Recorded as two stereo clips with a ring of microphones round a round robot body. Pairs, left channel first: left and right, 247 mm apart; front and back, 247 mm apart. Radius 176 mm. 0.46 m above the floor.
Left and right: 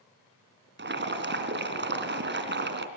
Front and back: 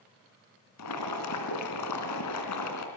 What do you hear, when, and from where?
0.8 s boiling: 40° right, 2.5 m